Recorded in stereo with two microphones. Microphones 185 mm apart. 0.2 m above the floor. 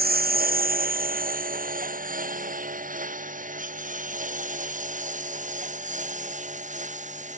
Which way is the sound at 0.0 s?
55° right (ahead or behind).